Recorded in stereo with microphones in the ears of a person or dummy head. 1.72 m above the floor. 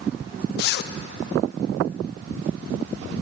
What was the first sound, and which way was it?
A zipper, 60° left (ahead or behind).